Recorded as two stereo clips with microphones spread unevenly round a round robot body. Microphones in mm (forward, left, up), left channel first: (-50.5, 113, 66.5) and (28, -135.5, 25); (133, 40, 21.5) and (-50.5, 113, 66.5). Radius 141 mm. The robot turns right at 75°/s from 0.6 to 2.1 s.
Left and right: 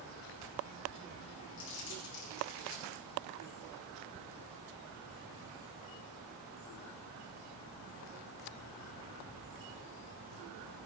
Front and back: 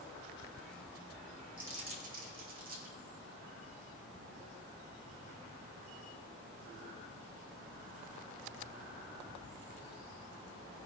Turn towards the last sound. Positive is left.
turn(degrees=115)